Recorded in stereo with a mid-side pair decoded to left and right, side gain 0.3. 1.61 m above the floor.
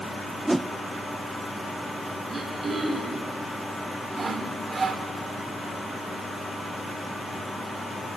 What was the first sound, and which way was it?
A whoosh, 25° right.